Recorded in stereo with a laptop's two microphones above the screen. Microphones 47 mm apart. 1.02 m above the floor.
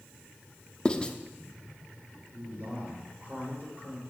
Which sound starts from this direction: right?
A man speaking, at 2.3 s.